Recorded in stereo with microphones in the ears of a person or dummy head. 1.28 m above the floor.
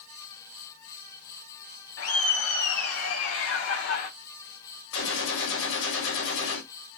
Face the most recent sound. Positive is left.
turn(degrees=75)  # may be behind; listen again after turning